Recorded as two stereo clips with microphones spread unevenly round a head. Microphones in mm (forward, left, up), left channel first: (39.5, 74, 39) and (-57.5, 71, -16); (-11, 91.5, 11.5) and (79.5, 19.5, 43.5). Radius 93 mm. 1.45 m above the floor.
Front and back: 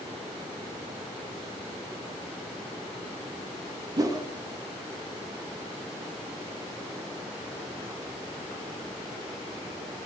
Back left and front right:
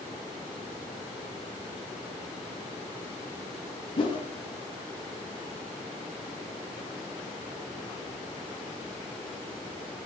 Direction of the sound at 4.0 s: 110° left.